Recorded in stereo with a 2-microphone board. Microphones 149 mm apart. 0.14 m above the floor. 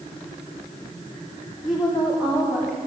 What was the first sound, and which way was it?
A woman speaking, centre (ahead or behind).